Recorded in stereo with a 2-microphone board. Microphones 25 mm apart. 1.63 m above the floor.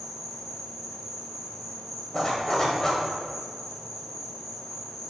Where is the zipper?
20° left (ahead or behind), 1.5 m.